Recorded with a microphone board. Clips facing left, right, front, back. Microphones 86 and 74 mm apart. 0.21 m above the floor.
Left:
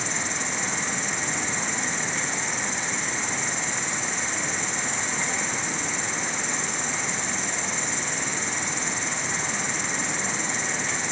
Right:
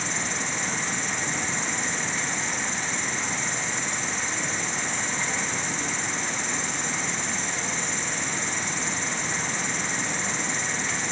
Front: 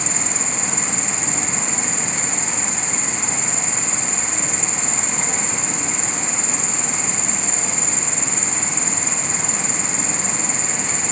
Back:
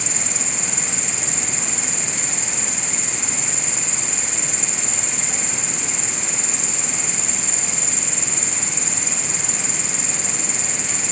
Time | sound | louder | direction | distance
0.0 | an insect | even, front 3 dB | straight ahead | 1.8 m